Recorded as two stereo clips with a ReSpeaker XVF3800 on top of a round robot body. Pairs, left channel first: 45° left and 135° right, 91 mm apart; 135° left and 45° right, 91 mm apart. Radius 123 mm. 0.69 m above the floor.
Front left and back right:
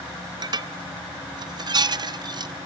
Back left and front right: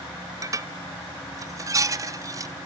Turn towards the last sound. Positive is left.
turn(degrees=-95)